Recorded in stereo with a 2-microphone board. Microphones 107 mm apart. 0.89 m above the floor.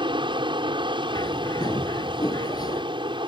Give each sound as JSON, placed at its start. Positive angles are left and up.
{"t": 0.0, "sound": "an aircraft", "side_deg": -55}
{"t": 1.1, "sound": "a bird", "side_deg": 40}